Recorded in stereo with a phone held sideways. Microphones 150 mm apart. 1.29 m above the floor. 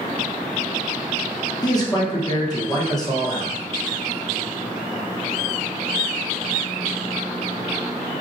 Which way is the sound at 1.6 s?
25° left (ahead or behind).